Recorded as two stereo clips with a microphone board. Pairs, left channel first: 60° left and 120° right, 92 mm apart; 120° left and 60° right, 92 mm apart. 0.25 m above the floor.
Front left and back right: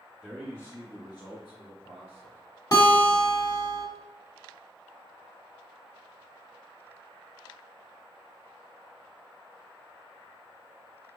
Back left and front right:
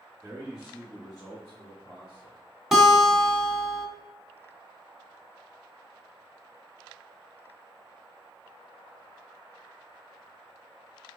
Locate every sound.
0.2 s a man speaking: 45° right, 1.1 m; by 2.4 s 80° left, 3 m
2.7 s a guitar: 30° left, 1.4 m